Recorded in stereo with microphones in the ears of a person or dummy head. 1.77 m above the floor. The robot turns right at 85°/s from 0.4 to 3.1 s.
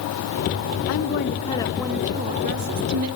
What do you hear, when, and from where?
0.9 s a woman speaking: 90° left, 0.8 m; by 3.1 s 80° right, 0.8 m